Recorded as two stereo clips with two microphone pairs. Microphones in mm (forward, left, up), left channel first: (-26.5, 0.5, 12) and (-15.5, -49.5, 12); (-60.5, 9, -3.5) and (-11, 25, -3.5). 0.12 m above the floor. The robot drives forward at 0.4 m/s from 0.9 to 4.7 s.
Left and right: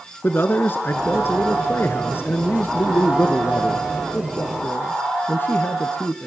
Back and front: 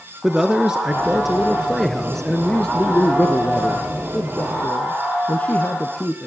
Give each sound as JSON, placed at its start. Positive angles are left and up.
{"t": 0.2, "sound": "a man speaking", "azimuth_deg": 95, "distance_m": 1.6}